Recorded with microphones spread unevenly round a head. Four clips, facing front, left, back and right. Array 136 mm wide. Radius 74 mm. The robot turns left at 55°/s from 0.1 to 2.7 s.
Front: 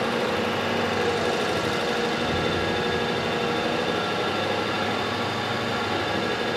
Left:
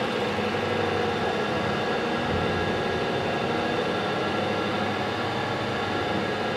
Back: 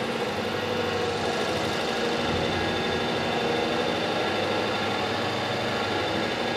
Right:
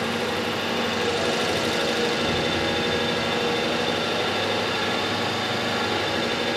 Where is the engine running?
Straight ahead, 0.8 m; by 6.6 s 145° right, 0.8 m.